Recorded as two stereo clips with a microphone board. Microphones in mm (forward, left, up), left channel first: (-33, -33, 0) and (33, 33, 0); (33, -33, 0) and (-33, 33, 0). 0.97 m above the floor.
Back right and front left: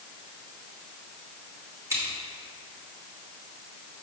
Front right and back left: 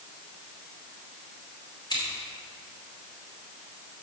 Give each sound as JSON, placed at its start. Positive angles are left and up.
{"t": 1.9, "sound": "scissors", "azimuth_deg": -5, "distance_m": 3.0}